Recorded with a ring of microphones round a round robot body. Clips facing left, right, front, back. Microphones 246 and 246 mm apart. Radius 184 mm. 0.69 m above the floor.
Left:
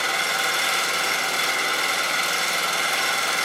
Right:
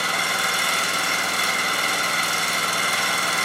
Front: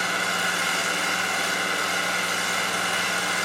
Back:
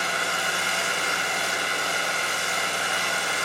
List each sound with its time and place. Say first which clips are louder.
0.0 s an engine running: even, front 1 dB; 55° right, 2.0 m